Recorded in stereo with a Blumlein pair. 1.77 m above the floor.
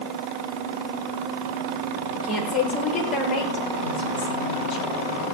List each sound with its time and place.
2.2 s a woman speaking: 5° left, 7 m; by 5.2 s 30° left, 9.5 m